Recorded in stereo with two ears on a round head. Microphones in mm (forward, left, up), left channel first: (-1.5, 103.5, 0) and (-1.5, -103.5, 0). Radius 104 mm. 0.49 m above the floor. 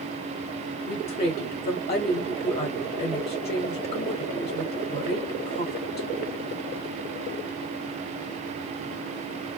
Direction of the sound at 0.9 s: 25° left (ahead or behind).